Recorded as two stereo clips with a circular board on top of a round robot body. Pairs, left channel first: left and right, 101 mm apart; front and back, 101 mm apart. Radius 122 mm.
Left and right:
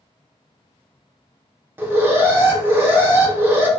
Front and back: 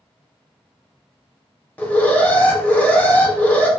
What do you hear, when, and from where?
1.8 s an alarm: 55° right, 0.9 m